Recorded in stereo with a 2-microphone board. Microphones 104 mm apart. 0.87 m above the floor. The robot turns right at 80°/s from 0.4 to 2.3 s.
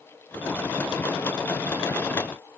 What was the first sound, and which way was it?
Only background noise.